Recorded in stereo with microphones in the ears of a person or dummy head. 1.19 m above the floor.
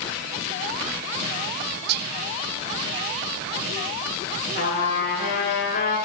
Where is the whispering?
45° right (ahead or behind), 0.5 m.